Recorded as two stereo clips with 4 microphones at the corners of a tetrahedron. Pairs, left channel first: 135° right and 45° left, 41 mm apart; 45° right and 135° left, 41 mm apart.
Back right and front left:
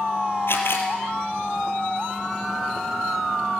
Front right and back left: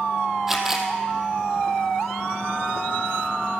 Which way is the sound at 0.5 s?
145° right.